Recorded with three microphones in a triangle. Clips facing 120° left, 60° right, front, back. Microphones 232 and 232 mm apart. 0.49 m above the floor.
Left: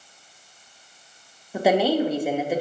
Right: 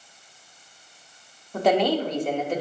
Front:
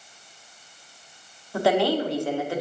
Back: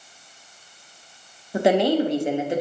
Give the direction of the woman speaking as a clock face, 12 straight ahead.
6 o'clock.